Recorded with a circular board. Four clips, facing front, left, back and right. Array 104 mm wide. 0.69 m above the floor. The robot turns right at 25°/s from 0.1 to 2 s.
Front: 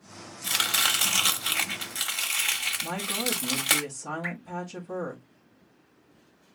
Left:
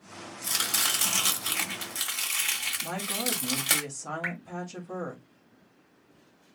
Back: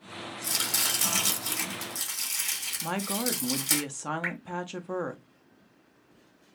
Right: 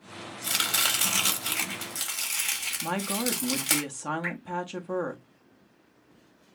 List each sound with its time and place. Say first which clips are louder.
0.4 s chopping: right 2 dB, front 7 dB; 30° right, 1.2 m; by 3.8 s 10° left, 1.2 m
2.8 s a woman speaking: right 5 dB, back 2 dB; 135° right, 0.8 m
4.2 s dripping: right 1 dB, back 1 dB; 150° left, 1.5 m